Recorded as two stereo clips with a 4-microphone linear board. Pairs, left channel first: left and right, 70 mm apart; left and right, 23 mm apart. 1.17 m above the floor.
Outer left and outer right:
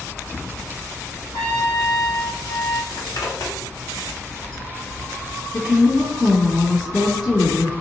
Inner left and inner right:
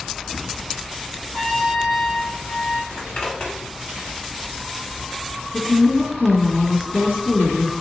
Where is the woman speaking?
85° left, 1.5 m.